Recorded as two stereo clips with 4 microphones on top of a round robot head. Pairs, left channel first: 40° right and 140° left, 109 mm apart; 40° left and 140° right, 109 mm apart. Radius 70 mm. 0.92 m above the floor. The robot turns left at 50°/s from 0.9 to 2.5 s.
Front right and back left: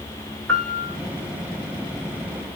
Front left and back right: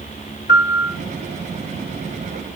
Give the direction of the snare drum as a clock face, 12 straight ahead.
No snare drum in this recording.